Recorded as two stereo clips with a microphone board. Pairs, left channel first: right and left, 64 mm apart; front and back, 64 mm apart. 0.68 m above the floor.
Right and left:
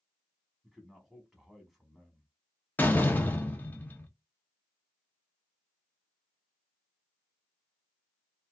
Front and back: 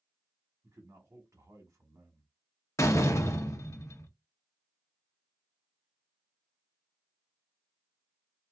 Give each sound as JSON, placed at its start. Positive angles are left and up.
{"t": 0.6, "sound": "a man speaking", "azimuth_deg": 175, "distance_m": 0.9}
{"t": 2.8, "sound": "a door slam", "azimuth_deg": -30, "distance_m": 0.6}